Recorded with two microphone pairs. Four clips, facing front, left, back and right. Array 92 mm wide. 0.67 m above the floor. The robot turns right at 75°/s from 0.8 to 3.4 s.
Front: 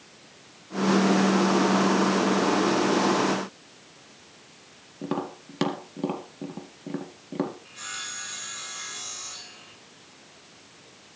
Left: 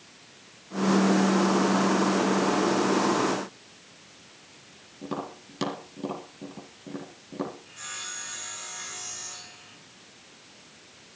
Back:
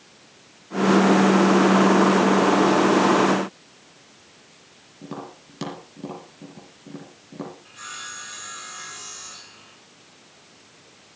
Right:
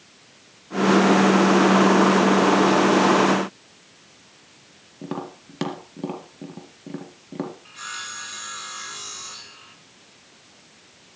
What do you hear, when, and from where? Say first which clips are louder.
5.0 s tapping: right 2 dB, front 6 dB; 35° right, 4 m
7.7 s sawing: right 6 dB, back 1 dB; 100° right, 5 m